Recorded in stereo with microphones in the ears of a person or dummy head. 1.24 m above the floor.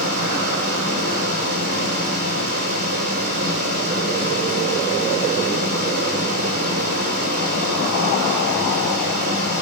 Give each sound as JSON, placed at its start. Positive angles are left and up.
{"t": 0.0, "sound": "a fan", "side_deg": -55, "distance_m": 8.0}